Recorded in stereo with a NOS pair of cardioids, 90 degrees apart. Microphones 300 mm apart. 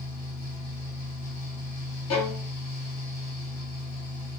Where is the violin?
60° left, 2.5 m.